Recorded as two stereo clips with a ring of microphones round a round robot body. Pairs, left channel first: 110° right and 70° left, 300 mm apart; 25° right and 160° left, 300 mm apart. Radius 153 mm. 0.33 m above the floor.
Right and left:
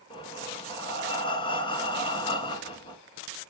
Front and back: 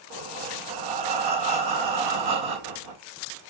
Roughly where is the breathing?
Behind.